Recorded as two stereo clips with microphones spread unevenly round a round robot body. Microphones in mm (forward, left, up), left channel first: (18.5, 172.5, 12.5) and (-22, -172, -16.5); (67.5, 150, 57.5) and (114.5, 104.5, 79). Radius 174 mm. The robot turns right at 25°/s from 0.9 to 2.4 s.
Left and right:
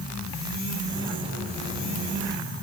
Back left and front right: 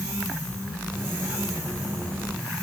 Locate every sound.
Only background noise.